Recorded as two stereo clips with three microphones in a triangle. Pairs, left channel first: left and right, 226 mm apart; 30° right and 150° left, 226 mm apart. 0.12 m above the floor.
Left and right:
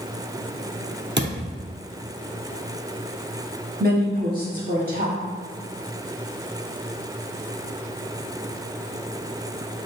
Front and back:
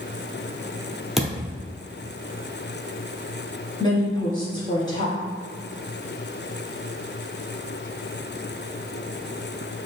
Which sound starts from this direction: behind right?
A thud, at 1.2 s.